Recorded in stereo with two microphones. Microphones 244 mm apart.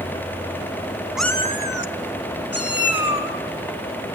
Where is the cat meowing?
5° right (ahead or behind), 0.8 m; by 3.3 s 75° left (ahead or behind), 3 m.